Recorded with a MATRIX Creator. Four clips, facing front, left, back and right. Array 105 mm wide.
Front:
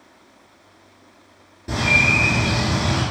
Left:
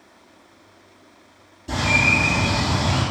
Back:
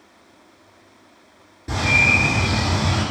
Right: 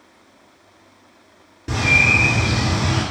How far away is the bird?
About 1.7 m.